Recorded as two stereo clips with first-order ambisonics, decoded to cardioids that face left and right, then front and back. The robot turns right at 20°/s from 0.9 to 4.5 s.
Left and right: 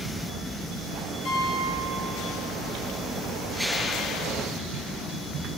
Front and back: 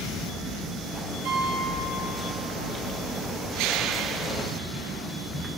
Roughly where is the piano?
Behind left.